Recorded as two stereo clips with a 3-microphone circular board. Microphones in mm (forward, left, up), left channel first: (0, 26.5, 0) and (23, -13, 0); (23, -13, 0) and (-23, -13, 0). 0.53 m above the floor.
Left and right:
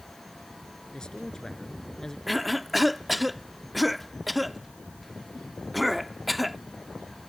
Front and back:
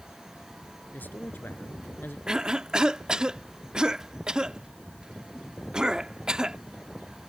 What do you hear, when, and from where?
0.9 s a man speaking: 50° left; by 2.2 s 45° left
2.3 s a cough: 145° right